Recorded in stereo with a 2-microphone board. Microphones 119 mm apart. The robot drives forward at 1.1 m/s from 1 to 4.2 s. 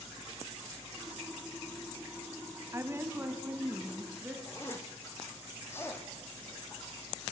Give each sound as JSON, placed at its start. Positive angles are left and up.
{"t": 2.7, "sound": "a woman speaking", "side_deg": -25, "distance_m": 1.5}
{"t": 4.5, "sound": "a zipper", "side_deg": 20, "distance_m": 3.5}